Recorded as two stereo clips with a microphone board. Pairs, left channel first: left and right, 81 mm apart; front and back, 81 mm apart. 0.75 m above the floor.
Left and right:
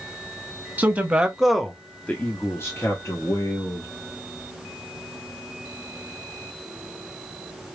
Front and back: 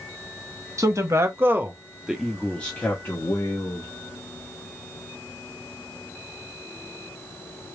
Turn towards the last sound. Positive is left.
turn(degrees=50)